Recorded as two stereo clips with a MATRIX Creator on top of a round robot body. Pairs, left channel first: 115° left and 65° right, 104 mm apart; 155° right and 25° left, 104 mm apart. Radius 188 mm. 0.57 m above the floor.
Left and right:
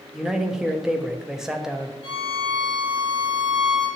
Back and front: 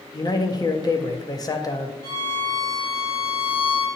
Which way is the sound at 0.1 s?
150° right.